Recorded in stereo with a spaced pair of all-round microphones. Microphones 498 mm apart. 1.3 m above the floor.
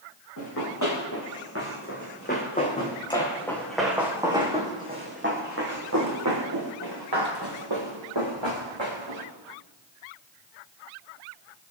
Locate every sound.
0.4 s running footsteps: 35° left (ahead or behind), 6.5 m; by 9.3 s 65° right (ahead or behind), 7 m